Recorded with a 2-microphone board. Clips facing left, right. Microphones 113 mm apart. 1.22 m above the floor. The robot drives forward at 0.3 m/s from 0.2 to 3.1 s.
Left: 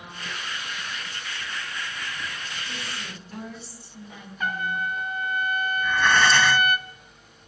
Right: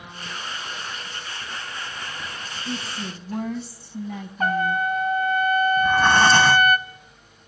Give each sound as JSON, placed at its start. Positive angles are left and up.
{"t": 2.6, "sound": "a woman speaking", "side_deg": -55, "distance_m": 1.6}
{"t": 4.4, "sound": "a trumpet", "side_deg": -40, "distance_m": 0.8}
{"t": 5.8, "sound": "breathing", "side_deg": -35, "distance_m": 0.6}